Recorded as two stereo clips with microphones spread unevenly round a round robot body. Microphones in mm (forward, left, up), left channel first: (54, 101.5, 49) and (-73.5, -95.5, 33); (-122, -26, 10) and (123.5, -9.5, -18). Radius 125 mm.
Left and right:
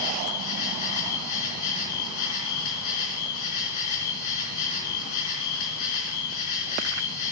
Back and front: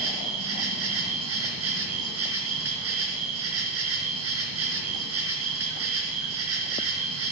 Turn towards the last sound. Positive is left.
turn(degrees=40)